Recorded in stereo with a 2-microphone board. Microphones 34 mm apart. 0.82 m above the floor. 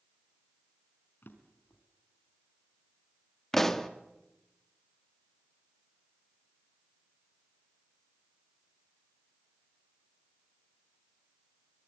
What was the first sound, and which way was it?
A drawer, 75° left (ahead or behind).